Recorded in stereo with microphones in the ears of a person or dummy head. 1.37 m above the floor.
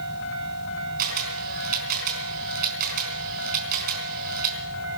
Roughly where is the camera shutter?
Right.